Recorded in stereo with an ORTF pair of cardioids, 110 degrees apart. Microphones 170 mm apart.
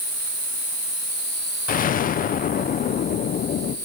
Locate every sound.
1.7 s an explosion: 50° left, 1.2 m